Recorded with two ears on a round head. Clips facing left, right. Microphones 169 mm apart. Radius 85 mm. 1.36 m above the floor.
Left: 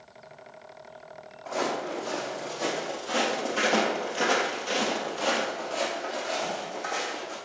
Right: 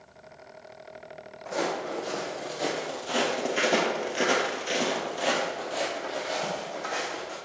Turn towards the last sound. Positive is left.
turn(degrees=-5)  # may be behind; listen again after turning